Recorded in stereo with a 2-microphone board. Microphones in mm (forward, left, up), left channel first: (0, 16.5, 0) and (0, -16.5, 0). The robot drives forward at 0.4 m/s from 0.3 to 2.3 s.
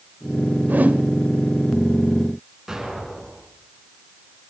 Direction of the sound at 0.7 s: 75° right (ahead or behind).